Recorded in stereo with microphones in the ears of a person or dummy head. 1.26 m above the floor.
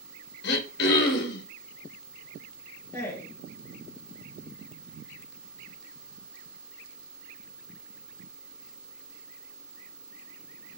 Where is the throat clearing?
55° left (ahead or behind), 0.8 m.